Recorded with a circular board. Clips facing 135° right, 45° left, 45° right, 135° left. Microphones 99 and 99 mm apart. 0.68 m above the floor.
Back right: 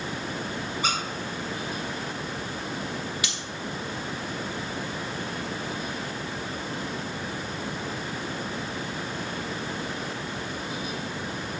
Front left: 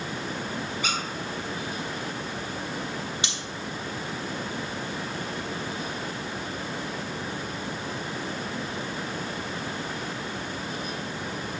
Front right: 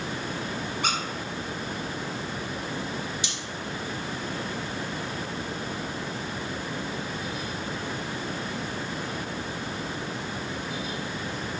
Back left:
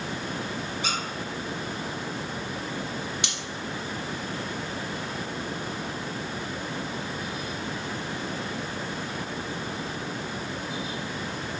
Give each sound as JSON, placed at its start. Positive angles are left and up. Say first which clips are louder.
{"t": 0.8, "sound": "a squeak", "louder": "back right 3 dB, front right 3 dB", "azimuth_deg": -80, "distance_m": 2.0}
{"t": 3.2, "sound": "cutlery clinking", "louder": "even, back left 1 dB", "azimuth_deg": 105, "distance_m": 0.9}